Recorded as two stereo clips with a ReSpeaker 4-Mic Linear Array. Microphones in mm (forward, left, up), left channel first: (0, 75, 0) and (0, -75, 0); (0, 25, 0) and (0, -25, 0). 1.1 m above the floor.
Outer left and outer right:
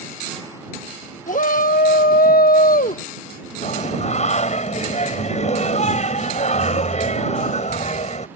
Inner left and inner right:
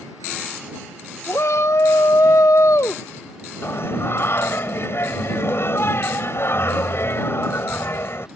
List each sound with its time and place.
1.3 s a shout: 60° left (ahead or behind)
3.6 s singing: 50° left (ahead or behind)